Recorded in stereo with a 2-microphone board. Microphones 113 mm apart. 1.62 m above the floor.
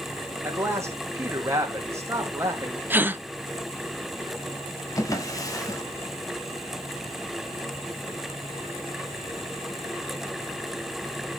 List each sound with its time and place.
0.4 s a man speaking: 25° right (ahead or behind), 2.5 m
2.9 s a gasp: 15° right (ahead or behind), 0.6 m
5.0 s a drawer: 30° left (ahead or behind), 1.6 m